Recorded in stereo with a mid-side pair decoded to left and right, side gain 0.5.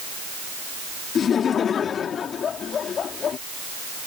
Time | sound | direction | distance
1.1 | laughter | 50° left | ?